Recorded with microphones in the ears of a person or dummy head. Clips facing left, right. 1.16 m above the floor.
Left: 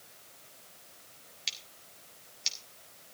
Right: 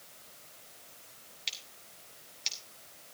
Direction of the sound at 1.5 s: 15° left (ahead or behind).